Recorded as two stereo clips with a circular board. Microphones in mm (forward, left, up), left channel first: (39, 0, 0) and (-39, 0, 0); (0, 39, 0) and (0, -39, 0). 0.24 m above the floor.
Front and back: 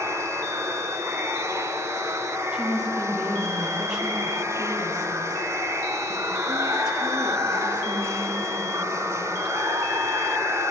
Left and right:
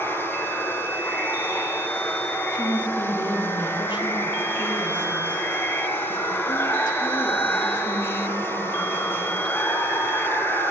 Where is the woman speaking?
100° left, 6 m.